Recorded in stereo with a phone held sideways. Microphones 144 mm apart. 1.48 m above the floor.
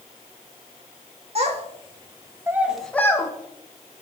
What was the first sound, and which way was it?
A child speaking, 45° right (ahead or behind).